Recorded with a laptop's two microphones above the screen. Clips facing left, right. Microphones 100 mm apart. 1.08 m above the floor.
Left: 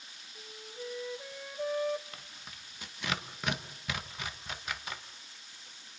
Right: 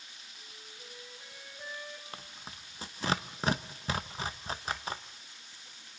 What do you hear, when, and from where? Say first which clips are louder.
0.3 s a flute: left 12 dB; 80° left, 1.3 m
2.1 s tearing paper: right 3 dB; 30° right (ahead or behind), 0.7 m